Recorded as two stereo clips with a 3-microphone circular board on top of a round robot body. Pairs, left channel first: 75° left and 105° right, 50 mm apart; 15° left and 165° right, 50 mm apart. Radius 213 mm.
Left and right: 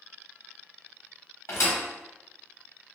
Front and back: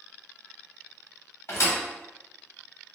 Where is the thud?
50° left, 1.0 m.